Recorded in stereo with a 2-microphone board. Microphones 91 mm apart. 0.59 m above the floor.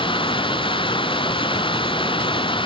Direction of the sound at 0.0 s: 65° left (ahead or behind).